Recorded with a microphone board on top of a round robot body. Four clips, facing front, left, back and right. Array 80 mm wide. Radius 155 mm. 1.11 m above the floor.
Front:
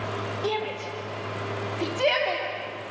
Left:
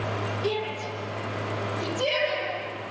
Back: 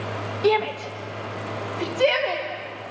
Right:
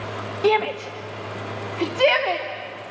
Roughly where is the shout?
Right.